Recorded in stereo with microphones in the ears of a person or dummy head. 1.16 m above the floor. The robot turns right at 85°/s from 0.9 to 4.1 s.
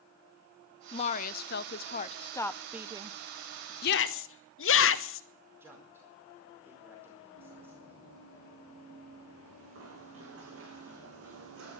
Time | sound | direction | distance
0.9 | a woman speaking | 35° left | 0.6 m
3.8 | a shout | 50° left (ahead or behind) | 1.1 m
5.6 | a man speaking | 10° right (ahead or behind) | 4.5 m
7.3 | running footsteps | 70° right (ahead or behind) | 8 m